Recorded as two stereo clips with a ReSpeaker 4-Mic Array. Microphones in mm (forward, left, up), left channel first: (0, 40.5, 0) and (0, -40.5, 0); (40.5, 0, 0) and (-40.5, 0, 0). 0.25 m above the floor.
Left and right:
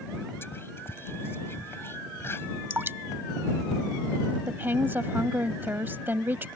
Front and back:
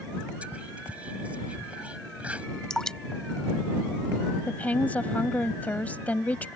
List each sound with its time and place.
0.4 s whispering: 120° left
2.7 s dripping: 75° right
4.5 s a woman speaking: 55° right